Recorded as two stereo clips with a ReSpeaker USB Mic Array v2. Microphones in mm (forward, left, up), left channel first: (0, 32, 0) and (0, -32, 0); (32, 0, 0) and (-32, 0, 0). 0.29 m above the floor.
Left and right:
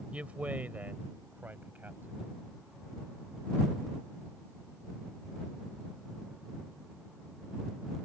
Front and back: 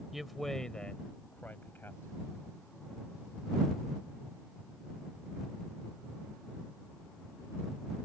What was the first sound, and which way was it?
A man speaking, 100° right.